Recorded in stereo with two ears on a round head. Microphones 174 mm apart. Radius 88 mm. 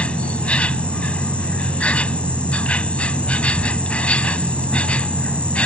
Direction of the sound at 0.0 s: 5° left (ahead or behind).